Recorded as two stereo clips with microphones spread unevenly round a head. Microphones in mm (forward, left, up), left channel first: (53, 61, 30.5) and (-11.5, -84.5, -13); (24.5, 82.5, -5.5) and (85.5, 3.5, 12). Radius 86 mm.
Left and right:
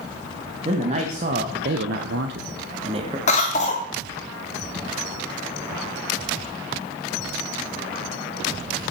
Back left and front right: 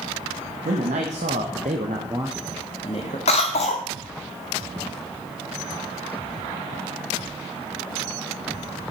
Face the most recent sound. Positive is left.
turn(degrees=120)